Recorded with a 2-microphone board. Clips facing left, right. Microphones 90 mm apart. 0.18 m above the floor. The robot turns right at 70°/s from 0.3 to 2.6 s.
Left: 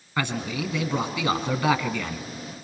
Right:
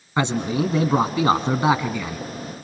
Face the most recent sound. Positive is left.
turn(degrees=20)